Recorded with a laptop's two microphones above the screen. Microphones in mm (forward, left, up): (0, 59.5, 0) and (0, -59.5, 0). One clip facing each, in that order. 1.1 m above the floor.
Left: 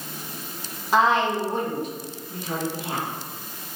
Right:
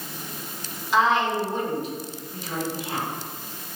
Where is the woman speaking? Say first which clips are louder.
Left 1 dB; 50° left (ahead or behind), 1.1 m.